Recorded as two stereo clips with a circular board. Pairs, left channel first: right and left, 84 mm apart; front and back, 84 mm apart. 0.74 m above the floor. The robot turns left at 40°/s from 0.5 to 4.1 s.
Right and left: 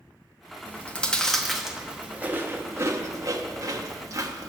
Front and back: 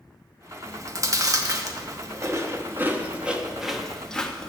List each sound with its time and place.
0.7 s chewing: 145° right, 0.9 m; by 4.5 s 75° left, 0.9 m